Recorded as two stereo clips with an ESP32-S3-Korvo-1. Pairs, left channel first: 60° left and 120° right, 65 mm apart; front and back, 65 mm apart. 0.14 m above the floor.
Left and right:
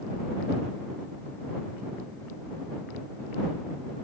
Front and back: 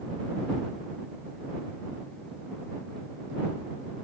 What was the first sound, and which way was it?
Only background noise.